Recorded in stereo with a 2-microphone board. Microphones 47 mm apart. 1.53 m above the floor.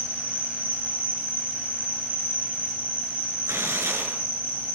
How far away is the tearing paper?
About 7 m.